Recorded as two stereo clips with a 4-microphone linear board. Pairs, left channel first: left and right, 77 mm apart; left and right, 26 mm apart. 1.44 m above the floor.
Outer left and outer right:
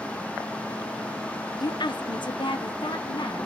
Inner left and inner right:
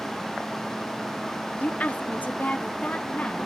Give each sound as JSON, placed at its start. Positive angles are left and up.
{"t": 1.6, "sound": "a woman speaking", "side_deg": 60, "distance_m": 0.6}